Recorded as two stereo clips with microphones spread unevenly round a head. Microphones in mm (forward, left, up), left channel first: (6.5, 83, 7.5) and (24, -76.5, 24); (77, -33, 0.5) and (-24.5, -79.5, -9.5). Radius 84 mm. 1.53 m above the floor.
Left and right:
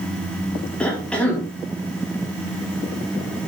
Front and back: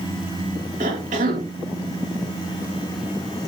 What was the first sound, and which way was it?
A cough, straight behind.